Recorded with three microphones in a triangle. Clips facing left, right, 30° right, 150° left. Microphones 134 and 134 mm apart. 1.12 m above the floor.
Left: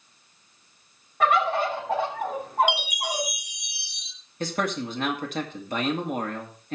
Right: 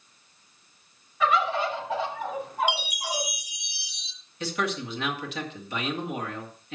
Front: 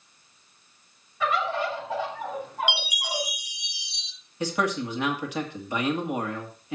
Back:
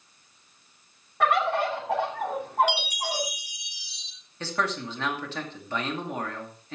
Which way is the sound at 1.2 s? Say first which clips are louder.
Left 2 dB, back 3 dB; 125° left.